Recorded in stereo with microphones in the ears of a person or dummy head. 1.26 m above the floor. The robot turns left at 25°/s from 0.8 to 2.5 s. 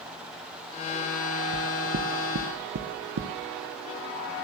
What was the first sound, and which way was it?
Knocking, 65° right (ahead or behind).